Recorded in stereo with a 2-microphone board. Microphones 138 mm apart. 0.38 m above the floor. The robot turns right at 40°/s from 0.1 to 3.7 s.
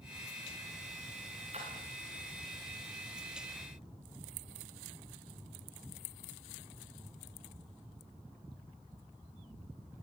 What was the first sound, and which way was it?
A splash, 50° right (ahead or behind).